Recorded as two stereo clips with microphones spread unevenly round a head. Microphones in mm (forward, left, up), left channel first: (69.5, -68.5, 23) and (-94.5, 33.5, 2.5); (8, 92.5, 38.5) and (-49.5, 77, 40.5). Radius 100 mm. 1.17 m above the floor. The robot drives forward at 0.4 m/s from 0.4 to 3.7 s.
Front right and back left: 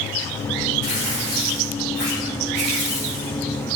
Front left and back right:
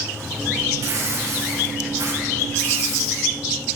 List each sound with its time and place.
0.8 s tearing paper: 170° left, 3 m; by 3.3 s 175° left, 4 m